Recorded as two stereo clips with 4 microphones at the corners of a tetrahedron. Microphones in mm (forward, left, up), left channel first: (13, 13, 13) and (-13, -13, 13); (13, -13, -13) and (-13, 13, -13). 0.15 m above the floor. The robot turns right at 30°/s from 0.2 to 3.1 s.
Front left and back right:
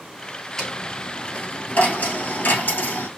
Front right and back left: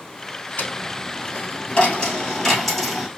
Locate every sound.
0.6 s a dropped coin: 25° right, 1.7 m; by 3.1 s 50° left, 1.7 m